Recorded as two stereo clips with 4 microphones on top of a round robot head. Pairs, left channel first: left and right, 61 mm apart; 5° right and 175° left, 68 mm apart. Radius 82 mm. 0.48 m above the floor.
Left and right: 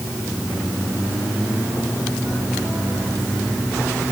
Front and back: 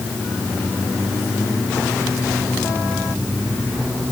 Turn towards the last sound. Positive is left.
No sound to turn to.